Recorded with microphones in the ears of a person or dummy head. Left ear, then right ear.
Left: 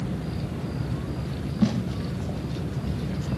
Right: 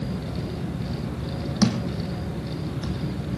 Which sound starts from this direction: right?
A thud, at 1.6 s.